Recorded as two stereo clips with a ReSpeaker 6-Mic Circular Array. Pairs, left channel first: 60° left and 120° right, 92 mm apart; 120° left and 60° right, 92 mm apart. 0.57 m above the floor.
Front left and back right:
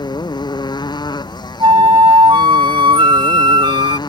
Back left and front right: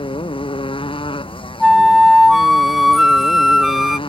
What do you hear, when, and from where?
0.0 s a motorcycle: 100° left
1.6 s a flute: 150° right